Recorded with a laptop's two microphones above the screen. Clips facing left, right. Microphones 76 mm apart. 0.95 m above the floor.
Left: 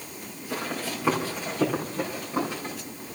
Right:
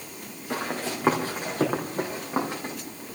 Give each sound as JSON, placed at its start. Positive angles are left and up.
{"t": 0.5, "sound": "running footsteps", "side_deg": -65, "distance_m": 3.5}